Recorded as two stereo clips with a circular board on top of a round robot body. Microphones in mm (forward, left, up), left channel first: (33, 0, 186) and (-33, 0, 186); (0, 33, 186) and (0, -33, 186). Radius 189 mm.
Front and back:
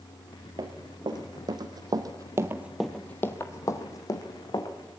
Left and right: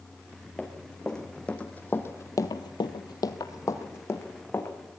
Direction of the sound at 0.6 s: 175° left.